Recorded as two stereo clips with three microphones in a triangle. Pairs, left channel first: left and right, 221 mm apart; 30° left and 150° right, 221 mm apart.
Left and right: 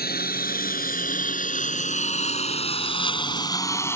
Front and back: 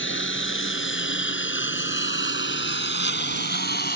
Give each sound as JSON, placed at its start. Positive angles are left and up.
{"t": 0.0, "sound": "a lawn mower", "azimuth_deg": 50}